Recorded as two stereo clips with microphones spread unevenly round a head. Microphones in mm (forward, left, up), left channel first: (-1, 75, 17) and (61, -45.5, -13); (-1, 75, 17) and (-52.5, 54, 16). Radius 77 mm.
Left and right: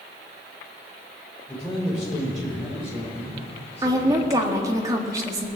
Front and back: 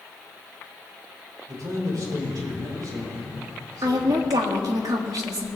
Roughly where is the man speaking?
Behind.